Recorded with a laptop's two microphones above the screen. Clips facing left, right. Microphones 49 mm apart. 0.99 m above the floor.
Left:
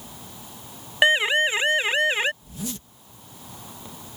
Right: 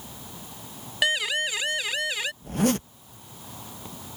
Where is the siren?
30° left (ahead or behind); by 2.3 s 35° left (ahead or behind).